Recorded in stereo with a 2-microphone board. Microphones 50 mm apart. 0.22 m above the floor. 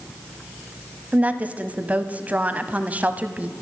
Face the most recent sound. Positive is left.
turn(degrees=-30)  # may be behind; listen again after turning